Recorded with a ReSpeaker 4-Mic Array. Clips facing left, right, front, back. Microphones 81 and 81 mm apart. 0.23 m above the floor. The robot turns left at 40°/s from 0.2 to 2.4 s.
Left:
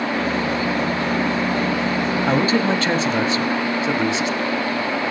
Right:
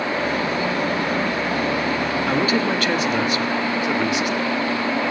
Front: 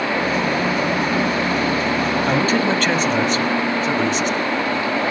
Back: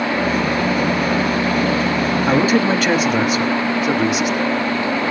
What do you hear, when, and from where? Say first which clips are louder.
2.3 s a man speaking: left 2 dB, back 4 dB; 115° left, 1.2 m; by 4.4 s 110° left, 1.2 m